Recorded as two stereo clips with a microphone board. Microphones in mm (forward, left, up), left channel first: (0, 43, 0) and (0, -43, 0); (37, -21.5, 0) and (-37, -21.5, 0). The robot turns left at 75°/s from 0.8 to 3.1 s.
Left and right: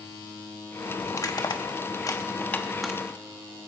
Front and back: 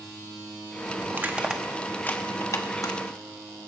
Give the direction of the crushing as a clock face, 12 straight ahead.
8 o'clock.